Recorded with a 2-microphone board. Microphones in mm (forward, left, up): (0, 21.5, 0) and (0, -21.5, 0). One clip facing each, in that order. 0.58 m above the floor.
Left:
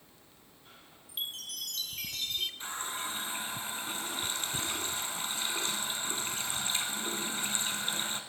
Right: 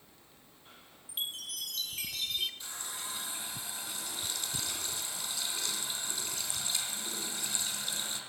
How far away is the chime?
About 2 m.